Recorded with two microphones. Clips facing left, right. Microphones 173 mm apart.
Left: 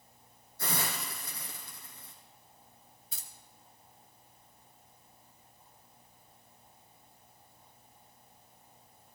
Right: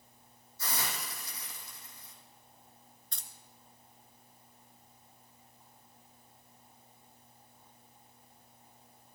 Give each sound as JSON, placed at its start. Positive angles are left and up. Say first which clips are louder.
{"t": 0.6, "sound": "a hiss", "louder": "left 3 dB", "side_deg": 55, "distance_m": 3.5}
{"t": 3.1, "sound": "keys jangling", "louder": "left 1 dB", "side_deg": 5, "distance_m": 1.0}